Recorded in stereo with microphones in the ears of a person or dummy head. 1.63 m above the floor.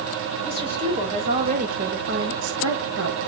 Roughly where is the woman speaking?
Right.